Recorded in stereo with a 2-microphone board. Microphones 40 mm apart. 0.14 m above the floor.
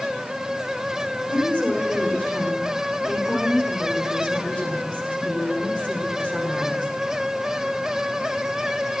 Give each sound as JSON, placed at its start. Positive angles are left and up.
{"t": 1.3, "sound": "a woman speaking", "side_deg": 30, "distance_m": 8.0}